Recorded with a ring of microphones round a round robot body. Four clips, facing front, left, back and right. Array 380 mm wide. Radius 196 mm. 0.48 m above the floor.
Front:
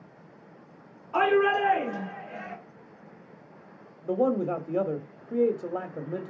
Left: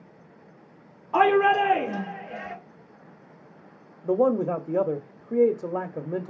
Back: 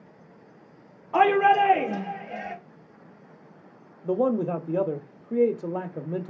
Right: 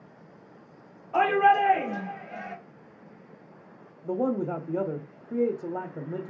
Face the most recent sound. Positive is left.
turn(degrees=120)